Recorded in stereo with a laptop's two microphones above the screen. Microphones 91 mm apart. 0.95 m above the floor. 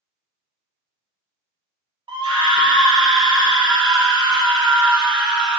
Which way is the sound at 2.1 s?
60° right (ahead or behind).